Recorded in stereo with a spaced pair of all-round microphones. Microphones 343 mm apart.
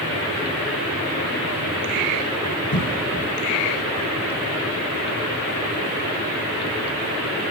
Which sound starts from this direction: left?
A cough, at 2.7 s.